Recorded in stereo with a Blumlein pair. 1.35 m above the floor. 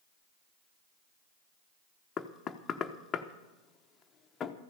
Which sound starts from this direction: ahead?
Knocking, at 2.2 s.